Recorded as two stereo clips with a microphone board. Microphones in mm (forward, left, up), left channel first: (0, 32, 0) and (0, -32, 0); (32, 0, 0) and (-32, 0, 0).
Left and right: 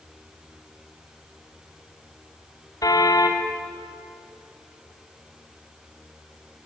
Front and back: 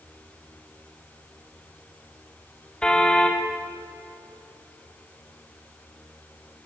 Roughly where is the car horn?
Left.